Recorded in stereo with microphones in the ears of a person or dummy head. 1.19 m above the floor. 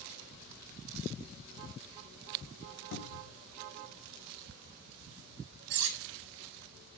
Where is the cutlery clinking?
65° right (ahead or behind), 1.3 m.